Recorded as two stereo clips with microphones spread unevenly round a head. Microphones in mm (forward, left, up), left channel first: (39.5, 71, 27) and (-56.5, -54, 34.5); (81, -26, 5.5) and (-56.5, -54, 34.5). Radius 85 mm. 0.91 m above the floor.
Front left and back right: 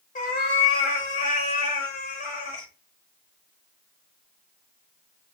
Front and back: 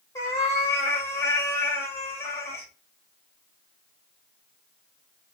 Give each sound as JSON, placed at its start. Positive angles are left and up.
{"t": 0.1, "sound": "a cat meowing", "azimuth_deg": 90, "distance_m": 0.9}